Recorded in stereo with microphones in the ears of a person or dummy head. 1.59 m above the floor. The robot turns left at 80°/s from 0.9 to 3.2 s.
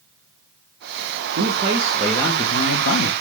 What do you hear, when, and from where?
1.4 s a man speaking: 130° right, 0.5 m; by 3.1 s 90° left, 0.5 m